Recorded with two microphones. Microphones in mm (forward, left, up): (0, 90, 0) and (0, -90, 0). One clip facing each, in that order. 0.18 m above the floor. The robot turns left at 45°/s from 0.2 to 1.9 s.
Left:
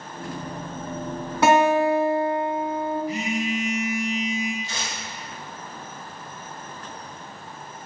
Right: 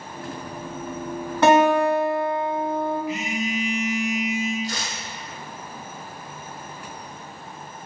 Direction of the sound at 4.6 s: 50° right (ahead or behind).